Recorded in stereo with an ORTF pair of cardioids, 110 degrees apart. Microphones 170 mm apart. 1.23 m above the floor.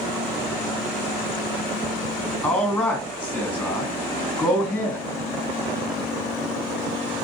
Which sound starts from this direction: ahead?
A man speaking, at 2.4 s.